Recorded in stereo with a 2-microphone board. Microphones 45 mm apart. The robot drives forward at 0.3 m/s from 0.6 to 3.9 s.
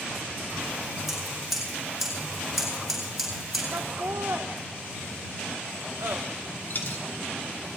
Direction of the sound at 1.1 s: Centre (ahead or behind).